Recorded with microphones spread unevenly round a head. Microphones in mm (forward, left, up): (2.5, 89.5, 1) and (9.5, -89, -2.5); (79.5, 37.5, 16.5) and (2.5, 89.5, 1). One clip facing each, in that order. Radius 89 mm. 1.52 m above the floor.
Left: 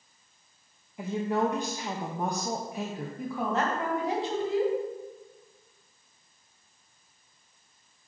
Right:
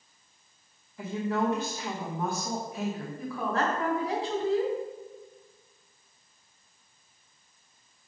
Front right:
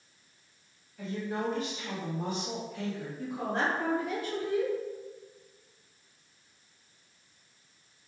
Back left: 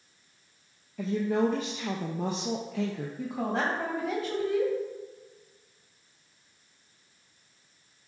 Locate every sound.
1.0 s a woman speaking: 170° left, 0.7 m
3.2 s a woman speaking: 165° left, 1.8 m